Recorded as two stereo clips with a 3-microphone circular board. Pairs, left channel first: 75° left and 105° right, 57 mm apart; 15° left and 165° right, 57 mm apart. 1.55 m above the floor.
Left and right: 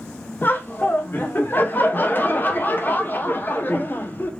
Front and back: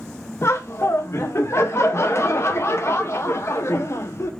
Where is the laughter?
30° left, 0.6 m.